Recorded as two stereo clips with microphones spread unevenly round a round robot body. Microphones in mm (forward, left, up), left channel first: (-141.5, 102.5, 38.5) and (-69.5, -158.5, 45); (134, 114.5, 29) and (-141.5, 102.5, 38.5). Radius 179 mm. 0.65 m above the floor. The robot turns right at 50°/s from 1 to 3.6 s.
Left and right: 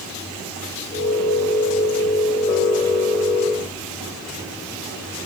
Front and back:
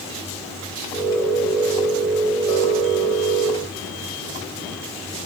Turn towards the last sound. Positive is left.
No sound to turn to.